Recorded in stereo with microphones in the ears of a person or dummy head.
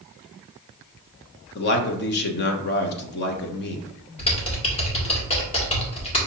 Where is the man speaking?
50° left (ahead or behind), 1.0 m.